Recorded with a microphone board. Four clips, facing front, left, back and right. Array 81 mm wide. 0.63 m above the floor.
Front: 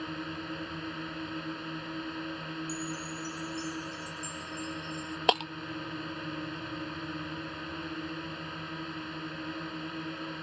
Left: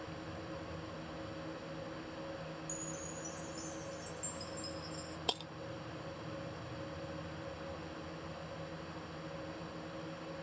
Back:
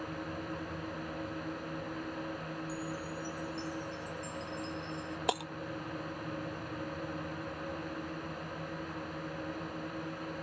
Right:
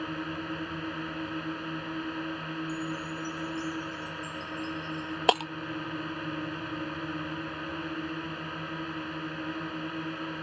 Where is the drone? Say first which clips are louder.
Right 11 dB, front 2 dB; 75° right.